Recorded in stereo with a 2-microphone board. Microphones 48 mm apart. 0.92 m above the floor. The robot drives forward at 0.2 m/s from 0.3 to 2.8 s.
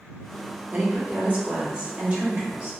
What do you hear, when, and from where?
0.7 s a woman speaking: 30° right (ahead or behind), 0.9 m; by 2.7 s 25° right (ahead or behind), 1.1 m